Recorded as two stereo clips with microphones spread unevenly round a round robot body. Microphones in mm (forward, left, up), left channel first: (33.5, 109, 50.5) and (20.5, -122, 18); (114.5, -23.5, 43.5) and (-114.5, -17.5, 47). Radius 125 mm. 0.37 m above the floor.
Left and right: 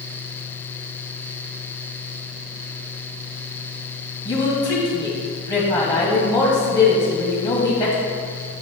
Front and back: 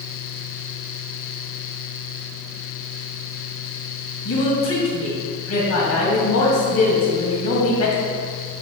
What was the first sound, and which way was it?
A woman speaking, 15° left.